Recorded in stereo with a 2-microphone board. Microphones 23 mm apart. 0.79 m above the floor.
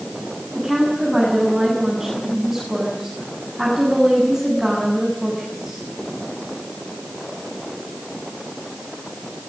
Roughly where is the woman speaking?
Centre.